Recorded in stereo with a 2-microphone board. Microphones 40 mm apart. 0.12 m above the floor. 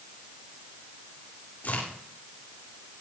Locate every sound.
1.6 s a crack: 50° left (ahead or behind), 9.5 m